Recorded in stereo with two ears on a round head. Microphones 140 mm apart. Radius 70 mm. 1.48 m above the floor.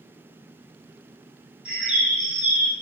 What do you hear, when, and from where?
1.6 s a bird: 5° right (ahead or behind), 3 m